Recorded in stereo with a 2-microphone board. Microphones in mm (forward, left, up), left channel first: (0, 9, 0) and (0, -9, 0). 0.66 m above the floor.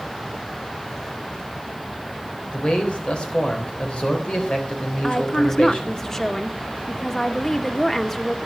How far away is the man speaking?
About 3.5 m.